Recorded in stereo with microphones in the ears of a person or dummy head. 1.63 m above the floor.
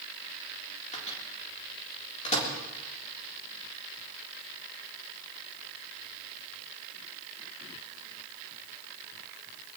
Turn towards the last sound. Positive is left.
turn(degrees=30)  # may be behind; listen again after turning